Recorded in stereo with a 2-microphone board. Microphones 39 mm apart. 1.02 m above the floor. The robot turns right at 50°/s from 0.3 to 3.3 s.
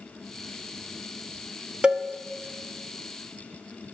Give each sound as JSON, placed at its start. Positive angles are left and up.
{"t": 1.8, "sound": "a cowbell", "side_deg": -25, "distance_m": 0.7}